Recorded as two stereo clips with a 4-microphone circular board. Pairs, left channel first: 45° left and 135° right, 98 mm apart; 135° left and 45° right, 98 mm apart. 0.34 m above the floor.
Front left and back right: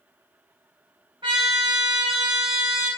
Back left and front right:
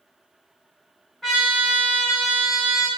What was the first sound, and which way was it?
A trumpet, 140° right.